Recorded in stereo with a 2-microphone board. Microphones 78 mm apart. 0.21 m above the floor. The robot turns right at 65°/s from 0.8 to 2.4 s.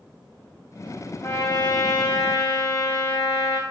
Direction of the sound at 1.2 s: 40° left.